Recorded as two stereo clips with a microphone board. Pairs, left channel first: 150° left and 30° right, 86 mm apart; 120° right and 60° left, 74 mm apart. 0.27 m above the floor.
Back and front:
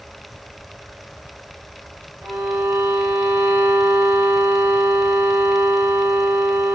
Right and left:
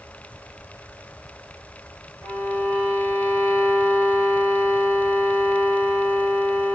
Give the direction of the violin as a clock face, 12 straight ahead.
2 o'clock.